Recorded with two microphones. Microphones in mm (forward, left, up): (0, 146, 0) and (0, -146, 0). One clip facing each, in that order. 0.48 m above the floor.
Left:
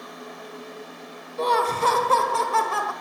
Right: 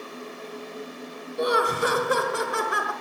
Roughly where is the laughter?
Centre.